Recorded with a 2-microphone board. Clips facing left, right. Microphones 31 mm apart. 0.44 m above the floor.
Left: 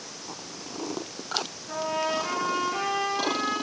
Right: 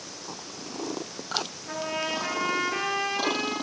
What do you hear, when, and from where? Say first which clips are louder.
1.7 s a trumpet: left 3 dB; 40° right (ahead or behind), 6 m